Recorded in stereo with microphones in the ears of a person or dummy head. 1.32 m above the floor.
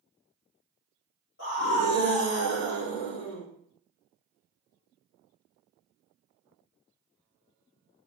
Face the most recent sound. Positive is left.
turn(degrees=70)  # may be behind; listen again after turning